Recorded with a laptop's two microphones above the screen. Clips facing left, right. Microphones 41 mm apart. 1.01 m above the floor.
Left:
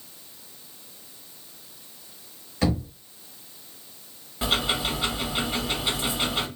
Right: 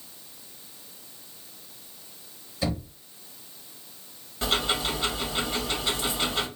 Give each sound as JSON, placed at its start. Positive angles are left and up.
{"t": 2.6, "sound": "knocking", "side_deg": 65, "distance_m": 1.7}
{"t": 4.4, "sound": "ticking", "side_deg": 10, "distance_m": 1.9}